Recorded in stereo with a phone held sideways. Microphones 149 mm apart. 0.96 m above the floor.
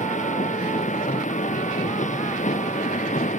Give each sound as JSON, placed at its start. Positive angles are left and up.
{"t": 0.0, "sound": "a machine running", "side_deg": 55}